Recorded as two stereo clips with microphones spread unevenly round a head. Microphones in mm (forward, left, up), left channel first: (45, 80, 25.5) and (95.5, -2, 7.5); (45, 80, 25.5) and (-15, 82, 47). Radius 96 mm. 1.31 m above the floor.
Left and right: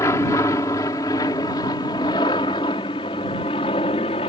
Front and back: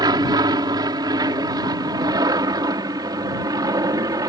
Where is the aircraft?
165° right; by 4.3 s 170° left.